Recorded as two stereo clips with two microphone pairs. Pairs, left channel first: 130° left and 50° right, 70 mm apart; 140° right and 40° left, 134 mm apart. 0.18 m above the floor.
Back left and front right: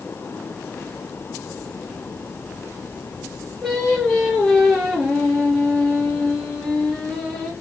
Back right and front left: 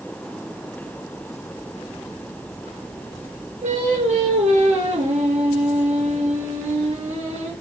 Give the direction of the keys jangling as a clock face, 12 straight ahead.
No keys jangling in this recording.